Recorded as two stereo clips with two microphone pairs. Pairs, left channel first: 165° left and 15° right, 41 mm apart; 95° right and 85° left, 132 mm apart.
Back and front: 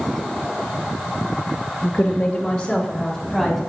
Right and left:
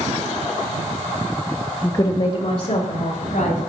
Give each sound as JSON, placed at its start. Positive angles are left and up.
{"t": 1.8, "sound": "a woman speaking", "azimuth_deg": -165, "distance_m": 0.6}